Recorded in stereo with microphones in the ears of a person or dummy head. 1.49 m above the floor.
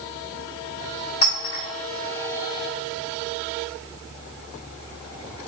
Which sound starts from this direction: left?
A clink, at 1.2 s.